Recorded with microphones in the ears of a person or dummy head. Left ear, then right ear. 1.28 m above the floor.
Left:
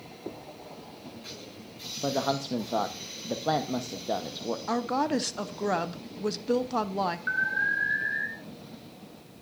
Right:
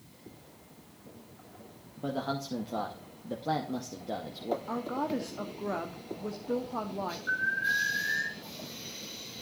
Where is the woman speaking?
55° left (ahead or behind), 0.6 m.